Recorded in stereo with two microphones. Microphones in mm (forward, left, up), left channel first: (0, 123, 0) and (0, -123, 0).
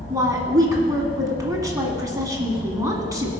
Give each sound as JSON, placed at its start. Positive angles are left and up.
{"t": 0.1, "sound": "a woman speaking", "side_deg": -15, "distance_m": 1.7}